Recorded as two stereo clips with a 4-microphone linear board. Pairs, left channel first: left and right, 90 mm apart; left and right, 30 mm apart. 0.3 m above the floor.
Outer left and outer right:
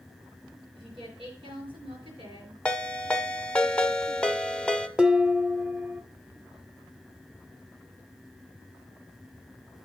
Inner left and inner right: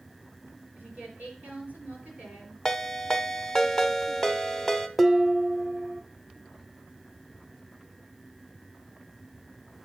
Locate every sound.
0.7 s a woman speaking: 75° right (ahead or behind), 5 m
2.6 s a ringtone: 10° left (ahead or behind), 0.8 m
5.0 s dishes clattering: 10° right (ahead or behind), 0.7 m